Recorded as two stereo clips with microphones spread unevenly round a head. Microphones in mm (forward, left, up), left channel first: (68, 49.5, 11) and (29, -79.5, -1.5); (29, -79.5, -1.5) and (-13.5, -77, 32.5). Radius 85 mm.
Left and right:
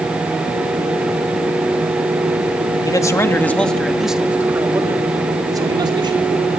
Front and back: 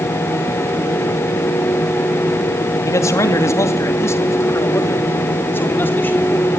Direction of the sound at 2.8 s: 10° left.